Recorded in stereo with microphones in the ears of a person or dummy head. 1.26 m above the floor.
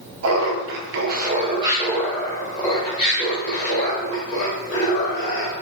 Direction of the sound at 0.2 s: 80° right.